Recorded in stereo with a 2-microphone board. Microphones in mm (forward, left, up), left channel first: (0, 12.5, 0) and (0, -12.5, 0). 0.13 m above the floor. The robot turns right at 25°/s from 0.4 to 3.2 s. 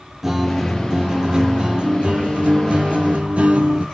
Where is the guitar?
165° right, 0.6 m; by 3.8 s 95° right, 0.6 m.